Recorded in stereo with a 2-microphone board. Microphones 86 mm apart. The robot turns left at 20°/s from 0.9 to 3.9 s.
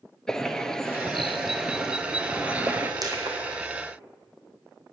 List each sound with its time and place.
0.3 s a bird: 10° left, 0.7 m; by 2.9 s 30° right, 0.7 m
3.0 s crushing: 45° right (ahead or behind), 2 m; by 3.4 s 55° right (ahead or behind), 2 m